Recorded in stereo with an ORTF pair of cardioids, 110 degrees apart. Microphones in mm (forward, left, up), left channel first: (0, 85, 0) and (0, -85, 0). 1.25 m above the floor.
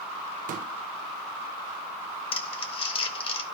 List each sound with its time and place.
0.5 s a pop: 55° right, 0.8 m
2.3 s crumpling: 35° left, 1.3 m